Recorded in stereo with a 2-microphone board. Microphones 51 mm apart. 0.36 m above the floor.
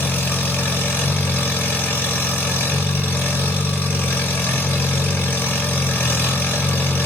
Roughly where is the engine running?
Left.